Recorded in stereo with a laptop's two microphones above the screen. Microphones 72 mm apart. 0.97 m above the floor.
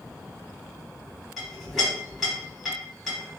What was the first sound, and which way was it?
A clink, centre (ahead or behind).